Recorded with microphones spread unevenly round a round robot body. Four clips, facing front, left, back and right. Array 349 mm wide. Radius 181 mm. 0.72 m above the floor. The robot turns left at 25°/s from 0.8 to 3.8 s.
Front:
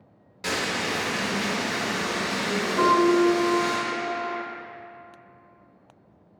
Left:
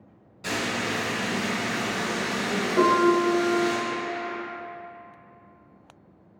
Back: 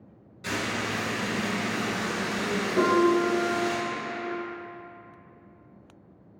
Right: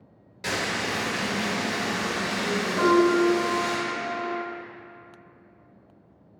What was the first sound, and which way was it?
Frying, 30° right.